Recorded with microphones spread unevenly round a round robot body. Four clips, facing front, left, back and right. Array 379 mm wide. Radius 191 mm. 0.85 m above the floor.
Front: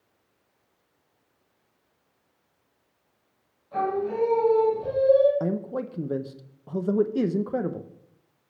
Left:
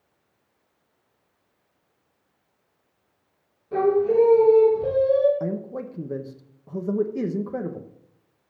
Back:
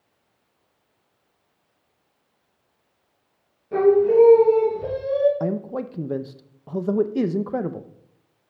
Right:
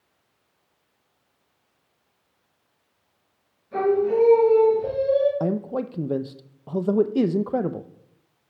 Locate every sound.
3.7 s singing: 145° left, 6.5 m
5.4 s a man speaking: 120° right, 0.7 m